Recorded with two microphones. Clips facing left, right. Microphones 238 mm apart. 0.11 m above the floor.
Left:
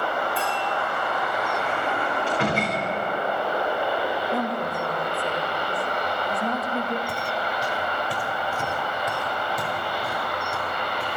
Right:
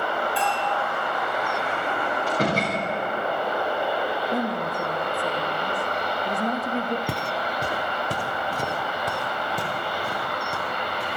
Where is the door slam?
40° right (ahead or behind), 10 m.